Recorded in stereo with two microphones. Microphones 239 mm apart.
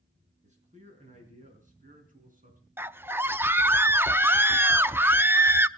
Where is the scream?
10° right (ahead or behind), 0.6 m.